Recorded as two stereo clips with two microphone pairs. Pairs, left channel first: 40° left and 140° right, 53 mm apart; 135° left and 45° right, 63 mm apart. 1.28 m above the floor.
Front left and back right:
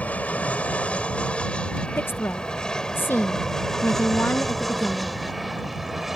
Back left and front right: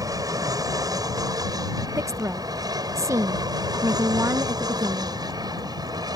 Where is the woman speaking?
5° right.